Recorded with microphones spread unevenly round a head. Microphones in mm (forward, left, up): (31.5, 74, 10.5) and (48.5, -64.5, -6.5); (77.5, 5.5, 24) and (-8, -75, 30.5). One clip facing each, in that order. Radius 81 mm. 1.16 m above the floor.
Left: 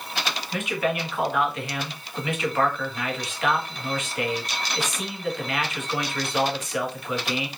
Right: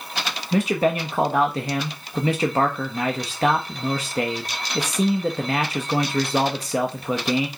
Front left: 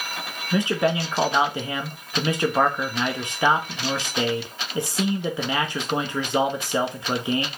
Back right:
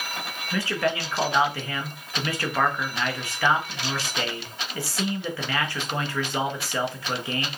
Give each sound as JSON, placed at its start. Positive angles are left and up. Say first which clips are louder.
{"t": 0.5, "sound": "a man speaking", "louder": "right 7 dB, front left 4 dB", "azimuth_deg": -25, "distance_m": 1.3}